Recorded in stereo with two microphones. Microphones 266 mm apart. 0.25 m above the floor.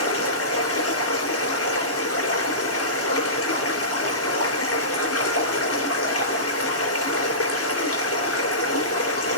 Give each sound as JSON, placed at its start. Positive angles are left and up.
{"t": 0.0, "sound": "running water", "side_deg": 60, "distance_m": 3.5}